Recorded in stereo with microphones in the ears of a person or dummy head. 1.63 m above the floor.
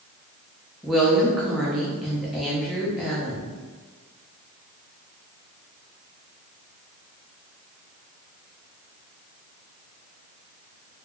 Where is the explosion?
I don't hear an explosion.